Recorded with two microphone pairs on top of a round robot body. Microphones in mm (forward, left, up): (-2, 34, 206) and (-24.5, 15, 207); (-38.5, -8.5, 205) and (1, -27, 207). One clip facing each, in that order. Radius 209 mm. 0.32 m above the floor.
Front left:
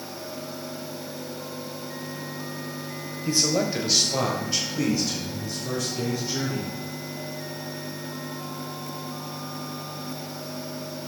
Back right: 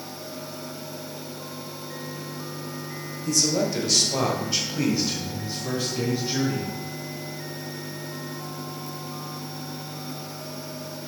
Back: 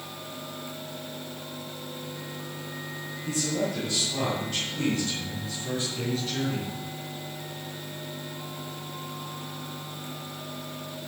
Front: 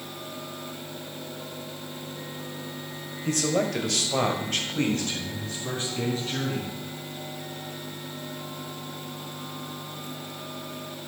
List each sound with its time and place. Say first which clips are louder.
3.2 s a man speaking: even, front 4 dB; 10° right, 2 m; by 6.7 s 85° right, 5 m